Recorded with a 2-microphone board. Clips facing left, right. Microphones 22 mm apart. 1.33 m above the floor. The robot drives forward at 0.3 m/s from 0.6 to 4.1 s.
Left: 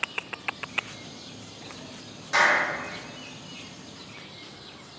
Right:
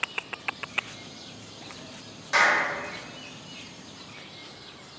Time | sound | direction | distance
2.3 | a clap | 10° right (ahead or behind) | 1.3 m